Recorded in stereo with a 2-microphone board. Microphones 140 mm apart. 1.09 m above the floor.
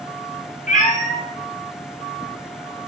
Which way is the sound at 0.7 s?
65° left (ahead or behind).